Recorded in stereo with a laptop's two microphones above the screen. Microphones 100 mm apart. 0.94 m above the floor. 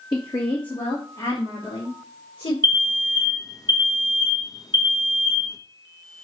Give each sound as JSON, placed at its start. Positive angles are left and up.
{"t": 0.1, "sound": "a woman speaking", "side_deg": 50, "distance_m": 1.7}
{"t": 2.6, "sound": "an alarm", "side_deg": 40, "distance_m": 1.2}